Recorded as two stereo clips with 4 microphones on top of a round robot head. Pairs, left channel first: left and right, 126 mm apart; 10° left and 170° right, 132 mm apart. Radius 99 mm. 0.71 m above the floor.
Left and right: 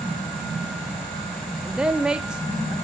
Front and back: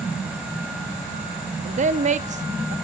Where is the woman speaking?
175° right, 1.0 m.